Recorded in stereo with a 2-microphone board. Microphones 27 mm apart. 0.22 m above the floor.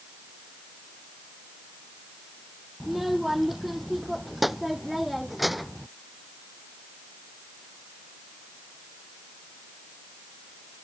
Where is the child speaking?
5° right (ahead or behind); by 5.9 s centre (ahead or behind).